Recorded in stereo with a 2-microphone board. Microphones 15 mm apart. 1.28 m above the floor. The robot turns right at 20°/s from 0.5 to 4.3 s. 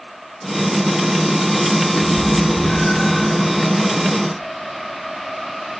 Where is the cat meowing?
75° left (ahead or behind), 8.5 m.